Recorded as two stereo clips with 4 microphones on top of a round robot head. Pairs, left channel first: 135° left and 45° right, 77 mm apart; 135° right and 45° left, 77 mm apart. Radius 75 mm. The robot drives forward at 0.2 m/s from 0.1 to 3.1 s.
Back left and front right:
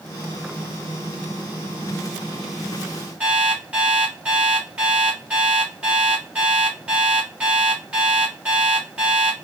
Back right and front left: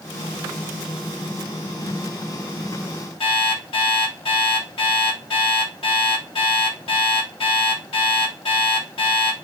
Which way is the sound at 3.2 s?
120° right.